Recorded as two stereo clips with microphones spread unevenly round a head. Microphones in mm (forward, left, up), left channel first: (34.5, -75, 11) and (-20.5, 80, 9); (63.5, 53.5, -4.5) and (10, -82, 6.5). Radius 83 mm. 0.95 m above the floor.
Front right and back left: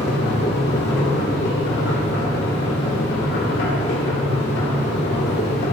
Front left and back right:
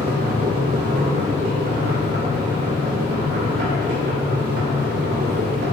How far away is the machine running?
About 2 m.